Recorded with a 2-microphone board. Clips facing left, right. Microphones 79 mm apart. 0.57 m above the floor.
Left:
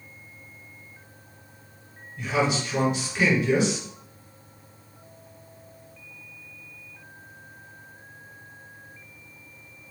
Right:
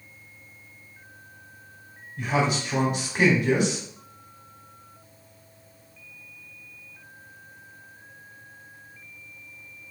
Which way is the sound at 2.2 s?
50° right (ahead or behind).